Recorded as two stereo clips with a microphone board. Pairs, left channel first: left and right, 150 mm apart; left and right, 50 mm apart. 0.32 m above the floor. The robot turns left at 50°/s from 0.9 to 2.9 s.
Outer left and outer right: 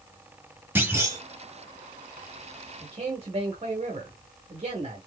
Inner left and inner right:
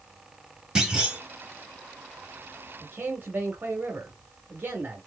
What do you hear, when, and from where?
0.8 s a clunk: 15° right (ahead or behind), 1.2 m; by 1.2 s 25° right (ahead or behind), 1.2 m
2.8 s a man speaking: 45° right (ahead or behind), 1.3 m